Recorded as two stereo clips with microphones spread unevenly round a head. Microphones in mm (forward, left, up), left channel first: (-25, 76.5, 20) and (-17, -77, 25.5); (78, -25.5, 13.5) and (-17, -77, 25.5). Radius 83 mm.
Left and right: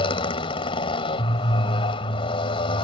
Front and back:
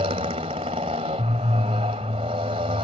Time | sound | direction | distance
0.0 | a motorcycle | 150° left | ?